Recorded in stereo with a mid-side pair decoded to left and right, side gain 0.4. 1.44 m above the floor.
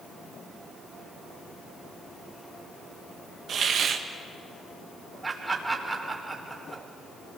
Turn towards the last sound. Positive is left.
turn(degrees=-35)